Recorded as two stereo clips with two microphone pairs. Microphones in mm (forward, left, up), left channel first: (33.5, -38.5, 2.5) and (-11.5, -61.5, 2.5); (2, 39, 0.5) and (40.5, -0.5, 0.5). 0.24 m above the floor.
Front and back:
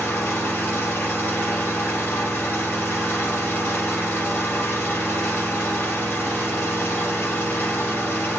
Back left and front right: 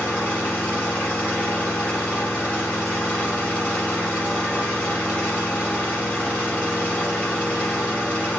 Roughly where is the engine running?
Left.